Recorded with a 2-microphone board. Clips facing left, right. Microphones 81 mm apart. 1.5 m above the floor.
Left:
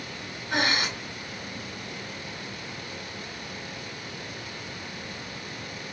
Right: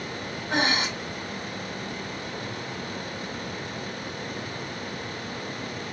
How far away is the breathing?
About 1.5 m.